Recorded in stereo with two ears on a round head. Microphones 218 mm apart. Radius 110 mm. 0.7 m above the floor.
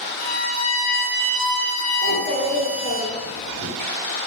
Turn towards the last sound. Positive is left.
turn(degrees=35)  # may be behind; listen again after turning